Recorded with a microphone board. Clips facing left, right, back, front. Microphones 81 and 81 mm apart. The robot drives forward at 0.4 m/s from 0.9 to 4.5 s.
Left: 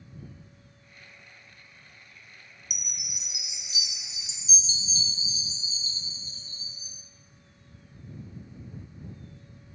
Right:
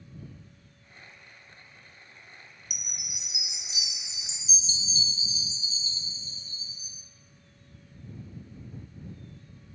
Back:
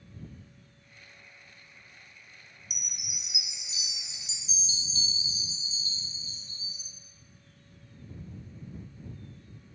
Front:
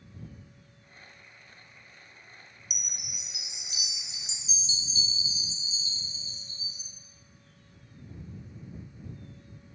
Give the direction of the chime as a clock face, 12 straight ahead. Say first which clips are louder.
Even, even; 9 o'clock.